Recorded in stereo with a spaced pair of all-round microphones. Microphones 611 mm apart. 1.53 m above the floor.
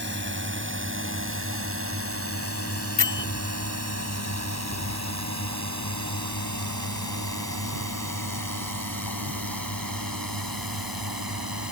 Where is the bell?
50° left (ahead or behind).